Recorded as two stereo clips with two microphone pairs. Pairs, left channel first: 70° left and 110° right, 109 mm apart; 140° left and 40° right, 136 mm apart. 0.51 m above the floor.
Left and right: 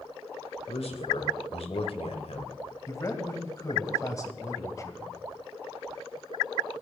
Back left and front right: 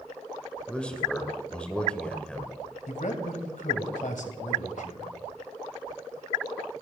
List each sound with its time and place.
0.7 s a man speaking: 60° left, 1.8 m
2.9 s a man speaking: 130° left, 2 m